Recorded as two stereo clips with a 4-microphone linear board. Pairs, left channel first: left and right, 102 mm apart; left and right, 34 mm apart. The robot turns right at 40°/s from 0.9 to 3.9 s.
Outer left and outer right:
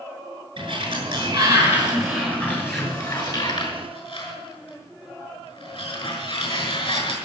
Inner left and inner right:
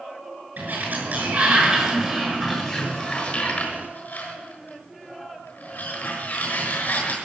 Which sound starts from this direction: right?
A sliding door, at 0.6 s.